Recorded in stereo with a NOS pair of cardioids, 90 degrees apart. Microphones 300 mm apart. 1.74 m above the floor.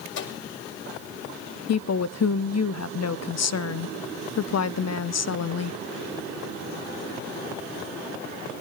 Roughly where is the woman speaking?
Ahead left.